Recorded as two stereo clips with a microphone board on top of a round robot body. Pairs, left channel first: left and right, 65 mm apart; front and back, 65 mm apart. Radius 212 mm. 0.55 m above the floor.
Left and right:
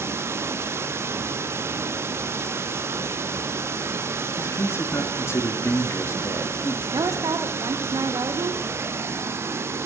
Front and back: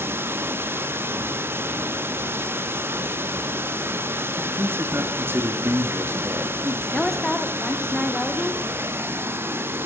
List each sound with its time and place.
0.0 s running water: 130° right, 1.2 m
4.4 s a man speaking: 130° left, 2 m
6.9 s a woman speaking: 85° right, 2 m